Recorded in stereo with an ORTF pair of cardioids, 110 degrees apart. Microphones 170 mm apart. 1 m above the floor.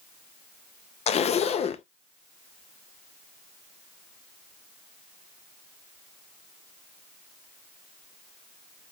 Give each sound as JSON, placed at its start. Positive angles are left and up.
{"t": 1.1, "sound": "a zipper", "azimuth_deg": 40, "distance_m": 0.5}